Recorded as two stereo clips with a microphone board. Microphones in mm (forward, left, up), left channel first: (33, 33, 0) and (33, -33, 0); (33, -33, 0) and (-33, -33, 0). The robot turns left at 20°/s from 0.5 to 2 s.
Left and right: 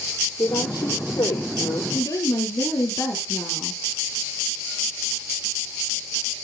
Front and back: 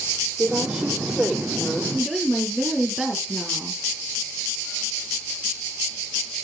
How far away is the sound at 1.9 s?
About 3 m.